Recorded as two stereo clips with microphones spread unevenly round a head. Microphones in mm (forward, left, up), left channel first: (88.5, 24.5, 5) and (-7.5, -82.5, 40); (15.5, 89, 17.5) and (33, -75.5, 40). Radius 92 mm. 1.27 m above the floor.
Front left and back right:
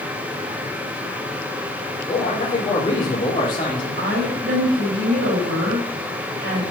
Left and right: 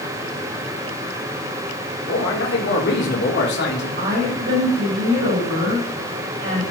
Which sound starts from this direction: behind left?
A man speaking, at 2.1 s.